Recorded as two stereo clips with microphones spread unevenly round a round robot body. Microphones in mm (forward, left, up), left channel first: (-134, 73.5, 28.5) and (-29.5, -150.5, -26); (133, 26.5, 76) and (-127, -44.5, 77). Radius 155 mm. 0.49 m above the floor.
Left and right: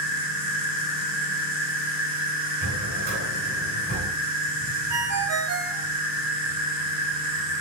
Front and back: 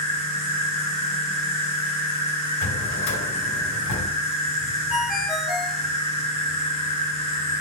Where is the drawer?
Straight ahead, 2 m.